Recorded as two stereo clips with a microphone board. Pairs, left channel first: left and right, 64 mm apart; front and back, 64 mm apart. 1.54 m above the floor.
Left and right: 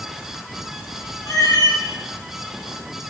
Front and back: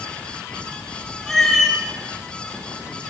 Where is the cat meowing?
80° left, 1.7 m.